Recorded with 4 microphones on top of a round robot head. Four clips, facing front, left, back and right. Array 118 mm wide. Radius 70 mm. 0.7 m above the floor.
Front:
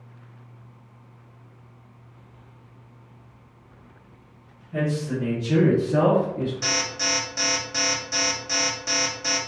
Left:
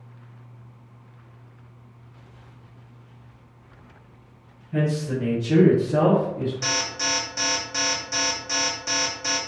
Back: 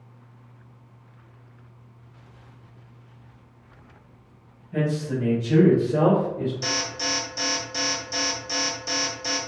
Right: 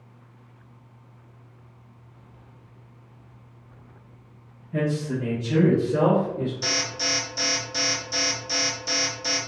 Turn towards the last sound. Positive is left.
turn(degrees=45)